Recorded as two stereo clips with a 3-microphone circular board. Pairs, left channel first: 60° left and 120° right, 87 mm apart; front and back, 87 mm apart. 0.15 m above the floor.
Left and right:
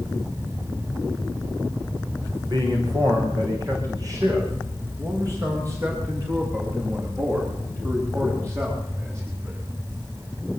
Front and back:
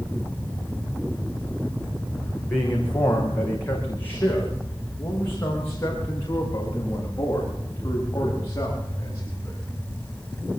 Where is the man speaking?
75° right, 8 m; by 9.6 s 60° right, 14.5 m.